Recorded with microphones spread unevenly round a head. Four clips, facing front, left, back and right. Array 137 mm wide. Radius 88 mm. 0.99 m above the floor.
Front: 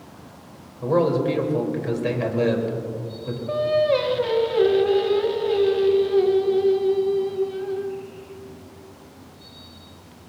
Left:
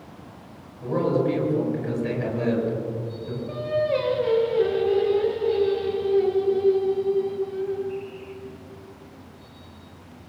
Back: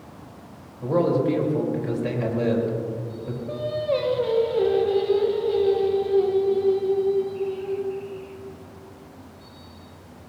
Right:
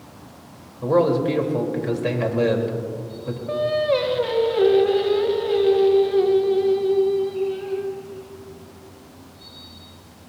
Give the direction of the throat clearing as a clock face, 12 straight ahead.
I don't hear throat clearing.